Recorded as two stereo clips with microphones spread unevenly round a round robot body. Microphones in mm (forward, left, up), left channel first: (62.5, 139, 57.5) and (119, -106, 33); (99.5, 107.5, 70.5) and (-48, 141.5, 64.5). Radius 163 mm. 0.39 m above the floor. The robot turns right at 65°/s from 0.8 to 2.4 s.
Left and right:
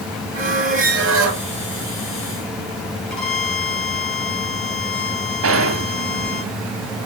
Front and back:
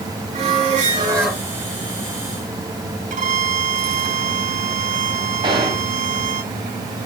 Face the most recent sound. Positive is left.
turn(degrees=-120)